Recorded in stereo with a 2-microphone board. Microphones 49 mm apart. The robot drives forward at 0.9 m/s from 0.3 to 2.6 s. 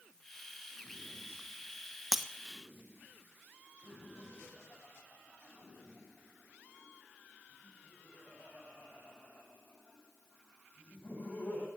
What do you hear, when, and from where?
2.1 s breaking glass: centre (ahead or behind), 1.0 m
3.8 s laughter: 30° left (ahead or behind), 7.5 m